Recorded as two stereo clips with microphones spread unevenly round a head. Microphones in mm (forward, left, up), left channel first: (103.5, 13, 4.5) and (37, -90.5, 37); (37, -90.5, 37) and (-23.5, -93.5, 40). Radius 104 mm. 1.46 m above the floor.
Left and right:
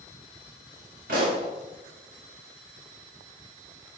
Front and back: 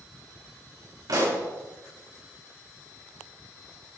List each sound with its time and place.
1.1 s a pop: 165° right, 4.5 m